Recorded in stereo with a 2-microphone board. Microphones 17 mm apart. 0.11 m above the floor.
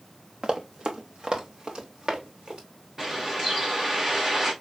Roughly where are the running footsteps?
Right.